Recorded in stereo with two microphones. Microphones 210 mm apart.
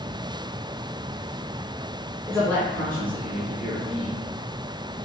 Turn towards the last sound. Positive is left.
turn(degrees=0)  # may be behind; listen again after turning